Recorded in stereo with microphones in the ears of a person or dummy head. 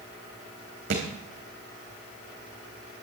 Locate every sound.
0.9 s a thud: 50° right (ahead or behind), 3.5 m